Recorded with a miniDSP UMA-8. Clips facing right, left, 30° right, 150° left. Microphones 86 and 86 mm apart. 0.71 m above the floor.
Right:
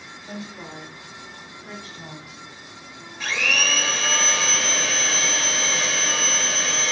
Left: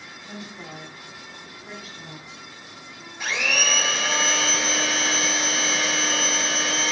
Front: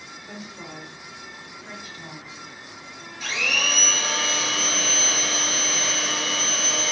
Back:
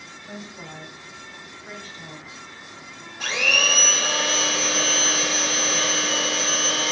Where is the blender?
165° left, 1.3 m.